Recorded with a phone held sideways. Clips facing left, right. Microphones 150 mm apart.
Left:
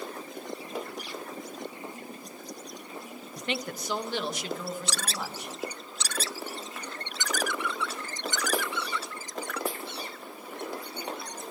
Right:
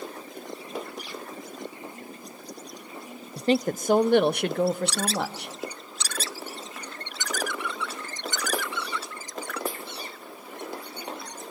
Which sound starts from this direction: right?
A woman speaking, at 3.4 s.